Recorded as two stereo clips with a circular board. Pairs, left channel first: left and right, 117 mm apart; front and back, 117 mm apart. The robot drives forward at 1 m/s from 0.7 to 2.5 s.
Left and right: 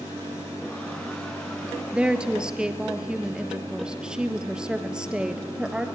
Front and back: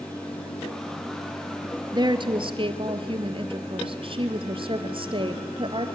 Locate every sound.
1.9 s a woman speaking: 165° right, 1.4 m; by 5.9 s 170° right, 1.8 m